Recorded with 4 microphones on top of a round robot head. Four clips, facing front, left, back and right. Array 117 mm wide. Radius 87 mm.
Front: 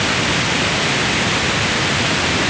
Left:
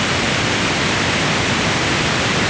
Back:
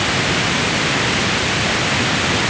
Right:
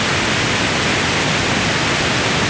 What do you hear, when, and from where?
Only background noise.